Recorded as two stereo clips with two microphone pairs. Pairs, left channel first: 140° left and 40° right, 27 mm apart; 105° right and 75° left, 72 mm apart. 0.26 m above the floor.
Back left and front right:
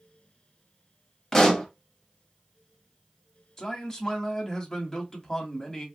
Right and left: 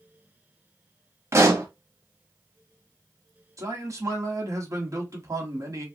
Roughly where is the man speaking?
Left.